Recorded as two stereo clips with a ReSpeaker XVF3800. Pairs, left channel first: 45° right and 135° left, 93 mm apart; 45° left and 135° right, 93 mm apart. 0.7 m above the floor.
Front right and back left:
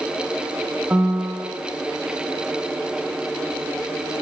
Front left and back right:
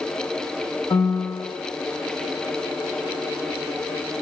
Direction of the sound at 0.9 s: 65° left.